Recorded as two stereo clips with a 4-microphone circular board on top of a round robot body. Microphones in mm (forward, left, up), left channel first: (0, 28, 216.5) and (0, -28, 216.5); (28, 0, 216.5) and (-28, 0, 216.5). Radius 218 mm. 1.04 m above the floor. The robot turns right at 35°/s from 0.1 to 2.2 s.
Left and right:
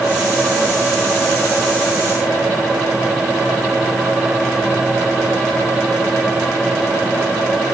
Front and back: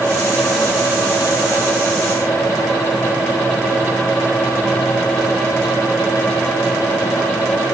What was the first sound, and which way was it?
Only background noise.